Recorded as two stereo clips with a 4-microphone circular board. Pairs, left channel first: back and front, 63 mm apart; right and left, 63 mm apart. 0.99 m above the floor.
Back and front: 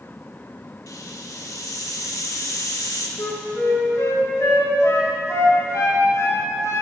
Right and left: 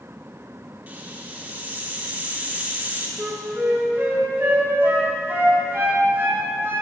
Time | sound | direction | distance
0.9 | a hiss | 155° left | 1.2 m
3.2 | a flute | 140° left | 2.5 m